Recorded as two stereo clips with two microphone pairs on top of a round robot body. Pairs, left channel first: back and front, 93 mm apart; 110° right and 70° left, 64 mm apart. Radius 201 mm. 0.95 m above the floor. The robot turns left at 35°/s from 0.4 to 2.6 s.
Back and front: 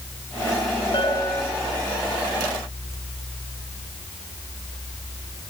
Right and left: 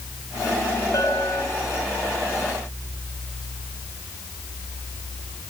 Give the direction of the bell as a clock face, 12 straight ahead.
5 o'clock.